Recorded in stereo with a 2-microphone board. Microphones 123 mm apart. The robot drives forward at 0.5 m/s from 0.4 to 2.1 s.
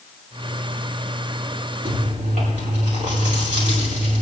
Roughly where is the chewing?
Right.